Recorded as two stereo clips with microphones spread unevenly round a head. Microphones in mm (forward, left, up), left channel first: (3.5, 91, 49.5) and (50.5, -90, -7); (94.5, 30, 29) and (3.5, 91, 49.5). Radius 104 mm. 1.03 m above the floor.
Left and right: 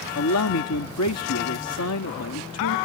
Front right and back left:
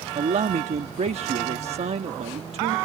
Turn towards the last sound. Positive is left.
turn(degrees=120)